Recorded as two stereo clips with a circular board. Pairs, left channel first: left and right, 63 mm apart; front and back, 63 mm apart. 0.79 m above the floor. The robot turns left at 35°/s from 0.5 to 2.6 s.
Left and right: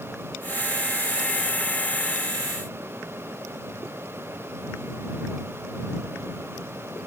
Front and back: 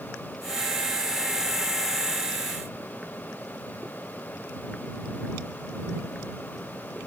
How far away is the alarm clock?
No alarm clock in this recording.